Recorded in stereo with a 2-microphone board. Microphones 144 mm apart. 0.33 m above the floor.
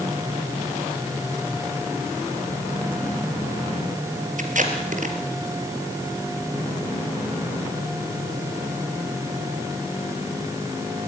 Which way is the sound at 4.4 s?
65° right (ahead or behind).